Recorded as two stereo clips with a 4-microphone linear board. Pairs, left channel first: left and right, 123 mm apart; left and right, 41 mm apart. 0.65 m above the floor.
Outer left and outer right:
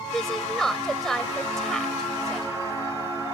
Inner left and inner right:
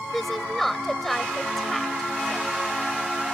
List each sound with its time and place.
0.1 s a woman speaking: 5° left (ahead or behind)